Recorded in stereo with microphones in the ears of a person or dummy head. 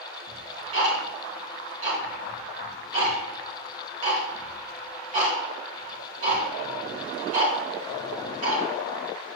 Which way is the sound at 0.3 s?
45° right (ahead or behind).